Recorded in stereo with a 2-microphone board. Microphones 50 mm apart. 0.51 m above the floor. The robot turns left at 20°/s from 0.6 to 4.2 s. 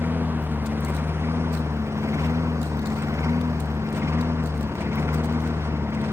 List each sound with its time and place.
0.0 s a lawn mower: 45° right (ahead or behind); by 6.1 s 60° right (ahead or behind)